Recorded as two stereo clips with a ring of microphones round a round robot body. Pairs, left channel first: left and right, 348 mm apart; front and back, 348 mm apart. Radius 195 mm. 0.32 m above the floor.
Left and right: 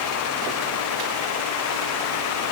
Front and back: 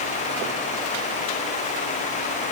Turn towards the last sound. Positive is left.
No sound to turn to.